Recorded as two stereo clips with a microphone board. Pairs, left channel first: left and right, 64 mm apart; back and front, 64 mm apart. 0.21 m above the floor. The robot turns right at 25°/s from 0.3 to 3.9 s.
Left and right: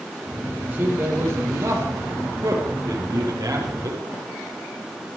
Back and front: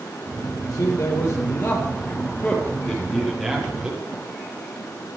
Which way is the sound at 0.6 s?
155° right.